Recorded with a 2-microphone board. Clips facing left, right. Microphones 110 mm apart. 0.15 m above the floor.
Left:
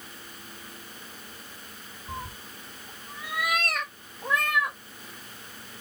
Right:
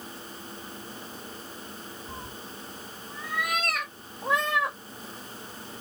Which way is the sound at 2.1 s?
45° left (ahead or behind).